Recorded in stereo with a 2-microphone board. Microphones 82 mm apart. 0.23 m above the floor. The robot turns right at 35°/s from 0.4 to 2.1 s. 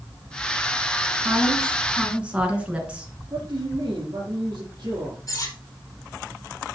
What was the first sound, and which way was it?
A woman speaking, 40° right (ahead or behind).